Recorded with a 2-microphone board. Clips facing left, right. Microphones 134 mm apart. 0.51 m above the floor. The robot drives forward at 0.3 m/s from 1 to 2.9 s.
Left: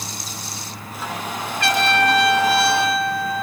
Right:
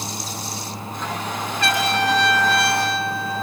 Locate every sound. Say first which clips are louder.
1.6 s a trumpet: left 3 dB; 75° left (ahead or behind), 2.5 m; by 3.4 s 70° left (ahead or behind), 3 m